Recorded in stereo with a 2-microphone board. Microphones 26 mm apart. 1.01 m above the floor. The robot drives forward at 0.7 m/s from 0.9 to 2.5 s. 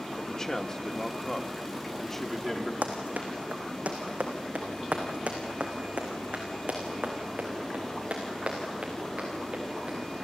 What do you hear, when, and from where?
0.2 s a man speaking: 20° left (ahead or behind), 1.5 m; by 2.7 s 10° left (ahead or behind), 2.5 m
2.8 s running footsteps: 75° right (ahead or behind), 3.5 m; by 10.0 s 45° right (ahead or behind), 6 m